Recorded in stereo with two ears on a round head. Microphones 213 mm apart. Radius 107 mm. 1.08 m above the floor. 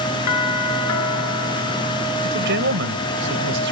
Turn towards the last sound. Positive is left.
turn(degrees=-50)  # may be behind; listen again after turning